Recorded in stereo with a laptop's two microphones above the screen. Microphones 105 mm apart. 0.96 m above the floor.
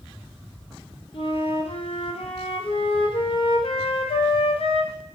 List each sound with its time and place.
1.1 s a flute: 60° left (ahead or behind), 0.6 m